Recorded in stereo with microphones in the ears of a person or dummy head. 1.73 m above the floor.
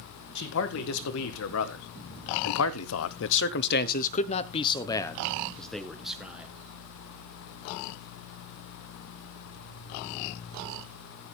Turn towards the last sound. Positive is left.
turn(degrees=-10)  # may be behind; listen again after turning